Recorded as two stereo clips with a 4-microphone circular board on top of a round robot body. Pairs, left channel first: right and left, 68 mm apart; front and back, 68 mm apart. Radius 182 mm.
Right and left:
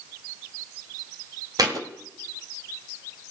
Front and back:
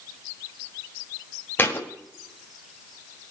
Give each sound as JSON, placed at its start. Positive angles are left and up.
{"t": 1.6, "sound": "a thud", "azimuth_deg": 60, "distance_m": 1.3}